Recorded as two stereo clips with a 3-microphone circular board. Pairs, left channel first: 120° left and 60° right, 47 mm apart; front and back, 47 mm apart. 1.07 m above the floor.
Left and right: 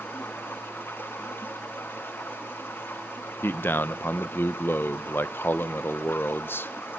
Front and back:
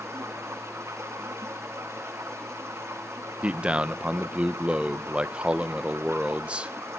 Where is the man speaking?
120° left, 0.7 m.